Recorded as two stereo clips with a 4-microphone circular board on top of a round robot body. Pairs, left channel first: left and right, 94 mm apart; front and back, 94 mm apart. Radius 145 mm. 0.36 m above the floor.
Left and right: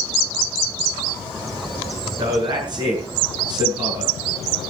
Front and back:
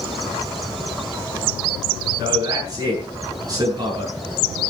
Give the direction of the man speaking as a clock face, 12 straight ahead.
4 o'clock.